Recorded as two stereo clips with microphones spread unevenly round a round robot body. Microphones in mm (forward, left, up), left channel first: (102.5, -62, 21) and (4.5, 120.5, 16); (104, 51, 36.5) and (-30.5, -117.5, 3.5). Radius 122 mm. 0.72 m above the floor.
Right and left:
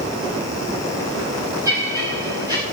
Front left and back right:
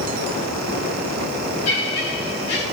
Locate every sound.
1.6 s laughter: 45° left, 6.5 m